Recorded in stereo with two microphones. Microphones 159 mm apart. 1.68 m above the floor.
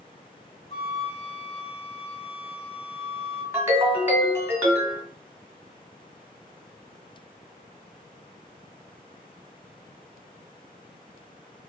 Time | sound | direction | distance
0.7 | a flute | 40° left (ahead or behind) | 1.2 m
3.5 | a ringtone | 15° right (ahead or behind) | 1.2 m